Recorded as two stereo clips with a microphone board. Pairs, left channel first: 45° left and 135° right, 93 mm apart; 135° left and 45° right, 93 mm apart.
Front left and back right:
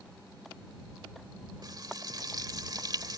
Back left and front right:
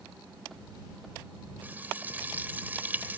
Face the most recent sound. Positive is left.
turn(degrees=-110)